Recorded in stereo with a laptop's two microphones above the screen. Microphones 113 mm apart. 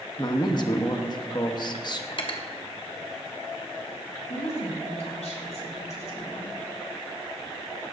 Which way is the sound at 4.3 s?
80° left.